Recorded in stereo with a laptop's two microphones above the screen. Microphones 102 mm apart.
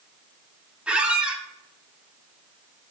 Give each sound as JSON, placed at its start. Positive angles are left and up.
{"t": 0.9, "sound": "a squeak", "side_deg": -10, "distance_m": 0.8}